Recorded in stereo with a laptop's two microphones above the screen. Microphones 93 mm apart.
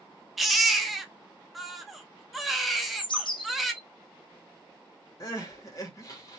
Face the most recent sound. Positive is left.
turn(degrees=40)  # may be behind; listen again after turning